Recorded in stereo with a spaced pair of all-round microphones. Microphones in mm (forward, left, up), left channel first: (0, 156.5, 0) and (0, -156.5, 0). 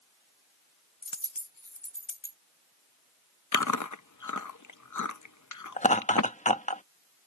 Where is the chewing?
70° left (ahead or behind).